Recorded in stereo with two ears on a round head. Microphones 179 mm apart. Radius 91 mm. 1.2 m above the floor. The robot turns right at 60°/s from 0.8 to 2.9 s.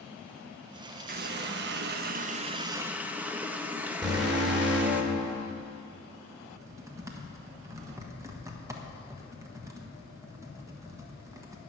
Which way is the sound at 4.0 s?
20° right (ahead or behind).